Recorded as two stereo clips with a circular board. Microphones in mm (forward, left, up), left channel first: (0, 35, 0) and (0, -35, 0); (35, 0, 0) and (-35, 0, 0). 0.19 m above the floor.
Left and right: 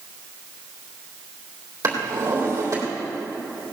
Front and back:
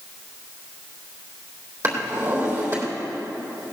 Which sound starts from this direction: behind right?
A drawer, at 1.8 s.